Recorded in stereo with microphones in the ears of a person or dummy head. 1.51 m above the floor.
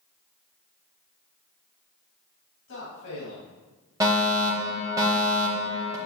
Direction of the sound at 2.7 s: 85° left.